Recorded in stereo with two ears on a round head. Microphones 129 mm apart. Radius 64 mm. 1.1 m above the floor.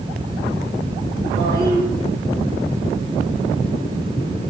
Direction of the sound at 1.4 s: 35° right (ahead or behind).